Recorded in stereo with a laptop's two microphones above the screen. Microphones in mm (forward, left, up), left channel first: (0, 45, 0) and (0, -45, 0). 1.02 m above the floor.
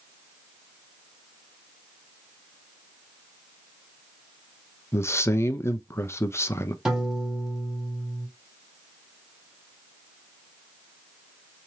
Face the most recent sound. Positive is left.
turn(degrees=-5)  # may be behind; listen again after turning